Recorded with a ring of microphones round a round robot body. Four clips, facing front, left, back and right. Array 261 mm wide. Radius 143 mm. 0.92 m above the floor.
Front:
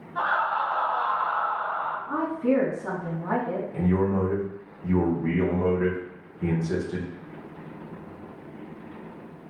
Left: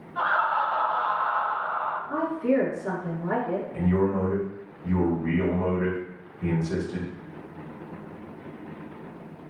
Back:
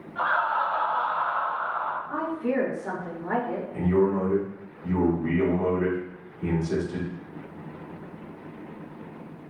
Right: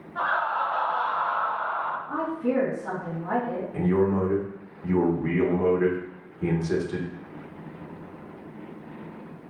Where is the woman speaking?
15° right, 1.9 m.